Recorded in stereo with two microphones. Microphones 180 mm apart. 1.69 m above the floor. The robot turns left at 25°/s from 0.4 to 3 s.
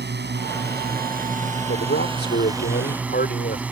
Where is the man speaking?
100° left; by 3.6 s 65° left.